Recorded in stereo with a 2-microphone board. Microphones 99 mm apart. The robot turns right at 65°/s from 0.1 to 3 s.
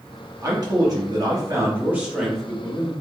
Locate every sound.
0.4 s a man speaking: 125° right, 1.1 m; by 2.9 s 40° left, 1.1 m